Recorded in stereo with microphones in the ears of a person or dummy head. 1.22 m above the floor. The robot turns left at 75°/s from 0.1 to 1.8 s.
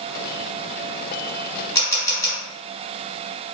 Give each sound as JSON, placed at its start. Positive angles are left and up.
{"t": 1.8, "sound": "a camera shutter", "side_deg": 20, "distance_m": 2.0}